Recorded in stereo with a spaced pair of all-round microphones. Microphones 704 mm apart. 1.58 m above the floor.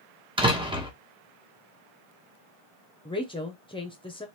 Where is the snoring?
I don't hear snoring.